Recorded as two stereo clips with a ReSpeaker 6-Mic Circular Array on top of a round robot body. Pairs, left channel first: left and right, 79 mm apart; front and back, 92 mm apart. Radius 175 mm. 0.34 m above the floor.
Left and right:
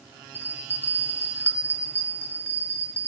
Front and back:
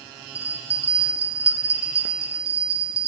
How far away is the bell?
About 2.5 m.